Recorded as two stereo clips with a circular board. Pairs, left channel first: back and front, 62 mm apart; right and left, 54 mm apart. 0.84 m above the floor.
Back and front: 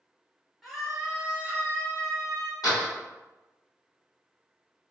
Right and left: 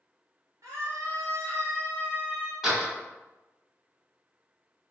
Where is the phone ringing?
No phone ringing in this recording.